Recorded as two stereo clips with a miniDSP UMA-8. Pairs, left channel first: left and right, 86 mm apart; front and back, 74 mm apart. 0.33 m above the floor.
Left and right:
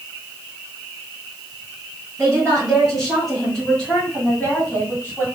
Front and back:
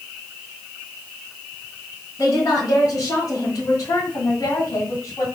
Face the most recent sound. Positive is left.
turn(degrees=35)